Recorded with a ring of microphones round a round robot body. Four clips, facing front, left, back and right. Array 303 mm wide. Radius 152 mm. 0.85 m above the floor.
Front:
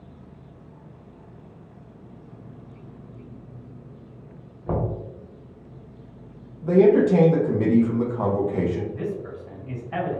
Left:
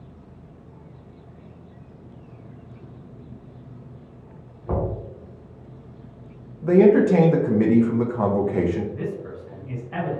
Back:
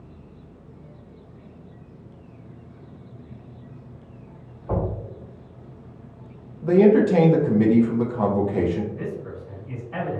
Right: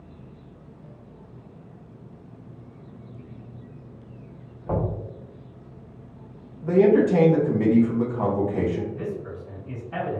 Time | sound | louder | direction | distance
4.7 | knocking | left 1 dB, even | 5° left | 1.3 m
6.6 | a man speaking | left 3 dB, back 1 dB | 115° left | 0.6 m
8.9 | a man speaking | left 1 dB, front 1 dB | 5° left | 1.7 m